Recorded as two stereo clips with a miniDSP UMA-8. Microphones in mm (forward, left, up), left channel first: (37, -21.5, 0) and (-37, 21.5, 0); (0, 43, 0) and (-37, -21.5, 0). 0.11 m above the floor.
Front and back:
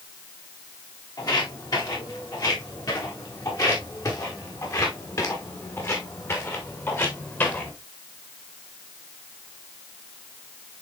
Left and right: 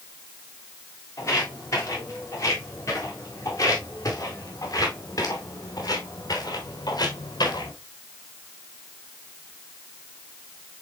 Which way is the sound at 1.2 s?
10° left.